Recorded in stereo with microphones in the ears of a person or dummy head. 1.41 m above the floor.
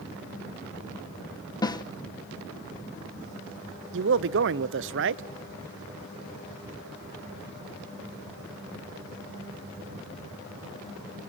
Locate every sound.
1.6 s a snare drum: 20° left (ahead or behind), 0.7 m
3.9 s a man speaking: 60° right (ahead or behind), 0.8 m